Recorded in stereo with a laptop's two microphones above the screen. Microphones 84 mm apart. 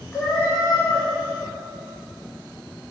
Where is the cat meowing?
40° left (ahead or behind), 1.3 m.